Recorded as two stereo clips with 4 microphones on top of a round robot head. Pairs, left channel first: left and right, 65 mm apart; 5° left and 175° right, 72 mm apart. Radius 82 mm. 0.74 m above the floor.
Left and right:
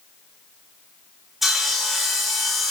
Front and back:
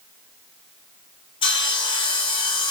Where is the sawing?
5° right, 0.8 m.